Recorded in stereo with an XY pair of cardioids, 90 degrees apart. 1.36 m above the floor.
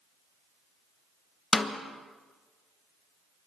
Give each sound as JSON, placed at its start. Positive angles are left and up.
{"t": 1.5, "sound": "a snare drum", "azimuth_deg": 30, "distance_m": 1.0}